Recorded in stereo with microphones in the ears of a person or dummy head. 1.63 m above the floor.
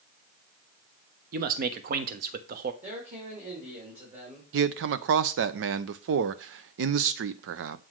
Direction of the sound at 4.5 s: 60° right (ahead or behind).